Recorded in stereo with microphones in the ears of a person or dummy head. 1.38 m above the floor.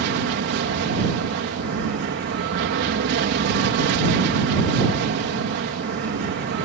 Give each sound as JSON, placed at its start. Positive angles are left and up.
{"t": 0.0, "sound": "an aircraft", "side_deg": -55}